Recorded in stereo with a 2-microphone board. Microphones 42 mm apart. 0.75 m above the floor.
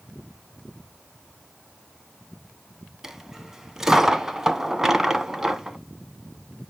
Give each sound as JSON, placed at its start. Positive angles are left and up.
{"t": 3.0, "sound": "a dropped coin", "side_deg": -10, "distance_m": 1.0}